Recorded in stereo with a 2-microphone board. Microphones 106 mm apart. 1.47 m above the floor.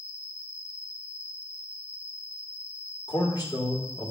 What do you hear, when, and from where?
0.0 s an insect: 25° left (ahead or behind), 0.9 m
3.1 s a man speaking: 40° left (ahead or behind), 1.5 m